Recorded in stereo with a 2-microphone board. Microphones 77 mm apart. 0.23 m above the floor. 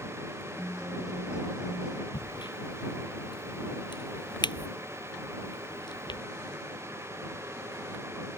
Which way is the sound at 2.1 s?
80° left.